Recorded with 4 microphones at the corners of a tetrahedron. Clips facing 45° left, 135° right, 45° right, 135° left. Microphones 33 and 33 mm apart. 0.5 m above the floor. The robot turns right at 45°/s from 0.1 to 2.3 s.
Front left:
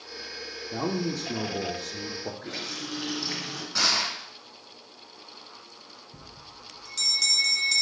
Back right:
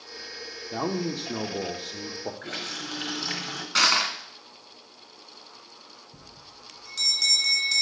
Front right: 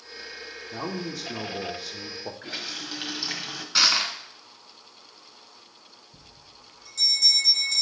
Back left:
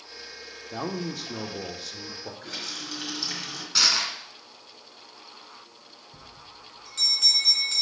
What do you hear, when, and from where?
0.7 s a man speaking: 170° right, 0.8 m; by 2.3 s 100° right, 0.8 m
2.4 s a running tap: 115° right, 1.7 m
3.8 s crushing: 120° right, 1.1 m
6.1 s a bell: 145° left, 2.0 m